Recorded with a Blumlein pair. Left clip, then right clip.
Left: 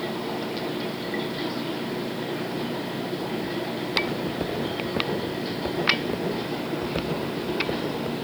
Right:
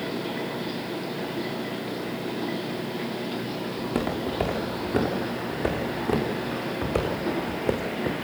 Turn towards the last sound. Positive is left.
turn(degrees=-60)